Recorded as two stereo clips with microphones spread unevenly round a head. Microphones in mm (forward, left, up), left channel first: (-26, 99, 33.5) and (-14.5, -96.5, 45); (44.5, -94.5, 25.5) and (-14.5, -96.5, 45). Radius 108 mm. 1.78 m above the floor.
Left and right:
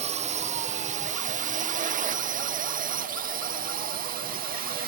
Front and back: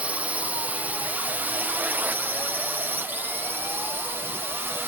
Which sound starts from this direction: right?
A drone, at 0.0 s.